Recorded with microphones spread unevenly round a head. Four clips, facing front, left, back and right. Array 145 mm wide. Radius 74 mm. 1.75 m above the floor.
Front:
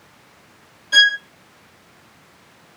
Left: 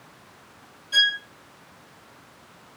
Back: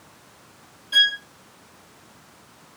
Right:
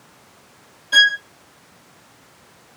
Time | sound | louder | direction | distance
0.9 | a violin | right 9 dB, front 8 dB | 55° right | 0.9 m